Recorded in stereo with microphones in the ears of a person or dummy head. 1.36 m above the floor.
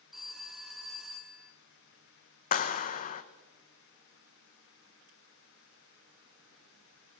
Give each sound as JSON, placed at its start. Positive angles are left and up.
{"t": 0.1, "sound": "a phone ringing", "side_deg": 0, "distance_m": 1.1}
{"t": 2.5, "sound": "a clap", "side_deg": 45, "distance_m": 0.9}